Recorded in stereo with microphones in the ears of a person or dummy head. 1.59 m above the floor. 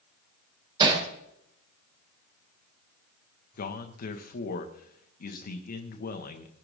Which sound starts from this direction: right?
Hammering, at 0.8 s.